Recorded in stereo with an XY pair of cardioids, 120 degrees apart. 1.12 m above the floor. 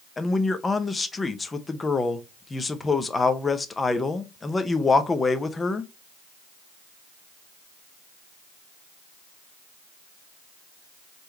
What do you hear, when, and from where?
0.2 s a man speaking: 20° left, 0.8 m